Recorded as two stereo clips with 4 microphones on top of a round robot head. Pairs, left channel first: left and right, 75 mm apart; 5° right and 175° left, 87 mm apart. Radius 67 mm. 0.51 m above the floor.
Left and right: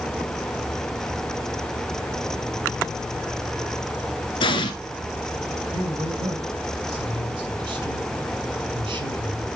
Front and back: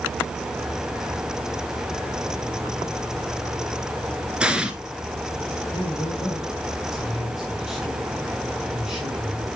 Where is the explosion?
100° left, 1.5 m.